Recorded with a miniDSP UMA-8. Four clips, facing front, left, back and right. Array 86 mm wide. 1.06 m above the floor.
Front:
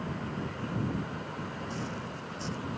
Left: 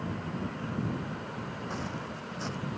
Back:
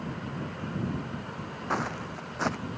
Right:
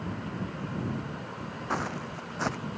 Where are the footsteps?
145° right.